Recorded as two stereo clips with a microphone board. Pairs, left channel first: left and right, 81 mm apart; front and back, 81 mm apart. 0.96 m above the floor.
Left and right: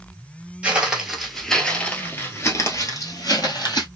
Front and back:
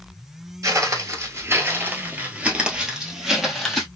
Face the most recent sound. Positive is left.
turn(degrees=85)